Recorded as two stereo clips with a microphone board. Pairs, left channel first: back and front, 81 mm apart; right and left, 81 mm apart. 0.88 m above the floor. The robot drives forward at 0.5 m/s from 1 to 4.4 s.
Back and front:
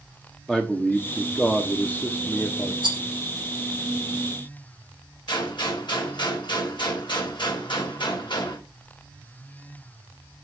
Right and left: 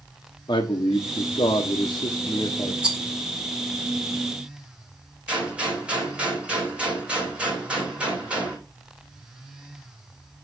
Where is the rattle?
15° left, 1.4 m.